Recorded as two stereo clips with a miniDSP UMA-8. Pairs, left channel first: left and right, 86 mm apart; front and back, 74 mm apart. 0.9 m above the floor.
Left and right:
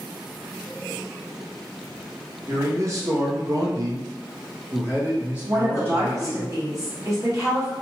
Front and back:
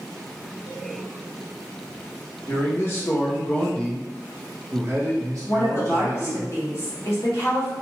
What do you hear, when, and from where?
2.5 s a man speaking: 40° right, 1.1 m; by 6.5 s 170° right, 1.3 m
5.5 s a woman speaking: 45° right, 1.5 m